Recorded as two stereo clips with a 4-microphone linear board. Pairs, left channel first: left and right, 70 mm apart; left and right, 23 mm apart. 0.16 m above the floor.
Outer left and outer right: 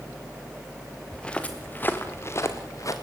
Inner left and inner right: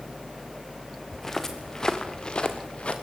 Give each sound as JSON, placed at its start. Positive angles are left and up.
{"t": 1.1, "sound": "footsteps", "side_deg": 10, "distance_m": 2.5}